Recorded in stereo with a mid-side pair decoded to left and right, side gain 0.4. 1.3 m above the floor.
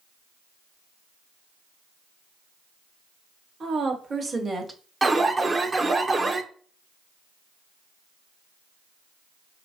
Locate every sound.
3.6 s a woman speaking: 55° right, 1.6 m; by 4.8 s 20° right, 1.3 m
5.0 s an alarm: 30° right, 0.7 m